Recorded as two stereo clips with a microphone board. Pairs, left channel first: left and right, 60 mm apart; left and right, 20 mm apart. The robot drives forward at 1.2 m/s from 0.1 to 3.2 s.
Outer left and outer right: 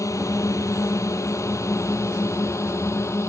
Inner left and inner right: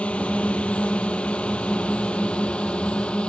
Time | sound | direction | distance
0.0 | a drone | 65° left (ahead or behind) | ?